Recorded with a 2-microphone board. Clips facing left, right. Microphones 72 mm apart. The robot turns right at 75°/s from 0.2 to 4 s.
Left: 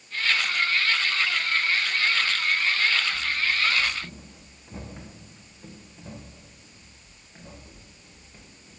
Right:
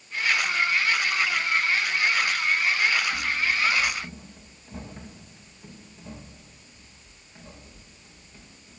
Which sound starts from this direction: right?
Running footsteps, at 3.1 s.